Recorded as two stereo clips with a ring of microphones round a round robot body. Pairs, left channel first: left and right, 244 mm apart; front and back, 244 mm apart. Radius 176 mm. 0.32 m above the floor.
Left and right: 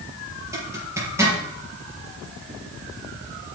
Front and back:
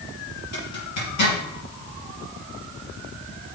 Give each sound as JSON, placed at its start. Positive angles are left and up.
{"t": 0.5, "sound": "a zipper", "azimuth_deg": -10, "distance_m": 5.0}